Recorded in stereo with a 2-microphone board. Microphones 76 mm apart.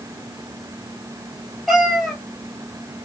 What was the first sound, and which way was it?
A cat meowing, centre (ahead or behind).